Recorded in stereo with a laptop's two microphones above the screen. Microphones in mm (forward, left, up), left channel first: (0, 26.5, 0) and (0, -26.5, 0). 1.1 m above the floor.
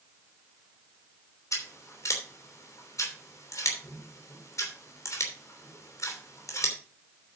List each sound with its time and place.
1.5 s scissors: 85° left, 3 m